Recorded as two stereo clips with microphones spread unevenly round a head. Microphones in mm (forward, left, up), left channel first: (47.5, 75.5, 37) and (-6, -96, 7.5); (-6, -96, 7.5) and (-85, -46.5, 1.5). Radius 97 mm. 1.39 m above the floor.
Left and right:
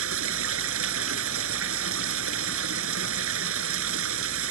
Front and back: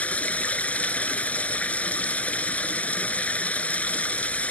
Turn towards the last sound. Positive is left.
turn(degrees=-105)